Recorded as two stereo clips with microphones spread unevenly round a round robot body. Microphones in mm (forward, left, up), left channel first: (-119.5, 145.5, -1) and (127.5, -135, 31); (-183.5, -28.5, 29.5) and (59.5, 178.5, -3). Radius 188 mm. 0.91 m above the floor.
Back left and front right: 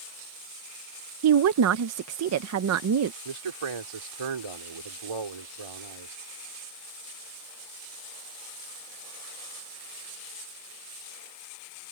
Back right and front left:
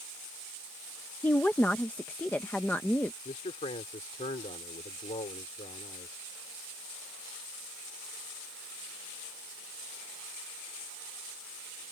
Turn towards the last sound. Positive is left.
turn(degrees=-65)